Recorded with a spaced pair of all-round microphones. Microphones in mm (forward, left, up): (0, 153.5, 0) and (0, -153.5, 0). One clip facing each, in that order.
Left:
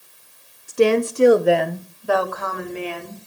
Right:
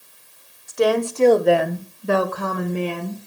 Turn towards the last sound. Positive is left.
turn(degrees=-60)  # may be behind; listen again after turning